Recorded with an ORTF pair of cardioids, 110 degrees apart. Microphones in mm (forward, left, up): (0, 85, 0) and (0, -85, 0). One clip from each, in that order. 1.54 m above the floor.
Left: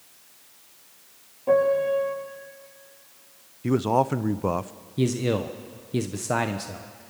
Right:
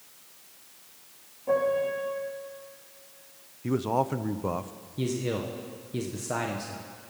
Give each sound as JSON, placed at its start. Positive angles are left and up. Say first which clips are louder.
{"t": 1.5, "sound": "a piano", "louder": "left 5 dB", "azimuth_deg": 40, "distance_m": 8.5}
{"t": 3.6, "sound": "a man speaking", "louder": "left 5 dB", "azimuth_deg": 25, "distance_m": 0.6}
{"t": 5.0, "sound": "a man speaking", "louder": "left 5 dB", "azimuth_deg": 35, "distance_m": 1.1}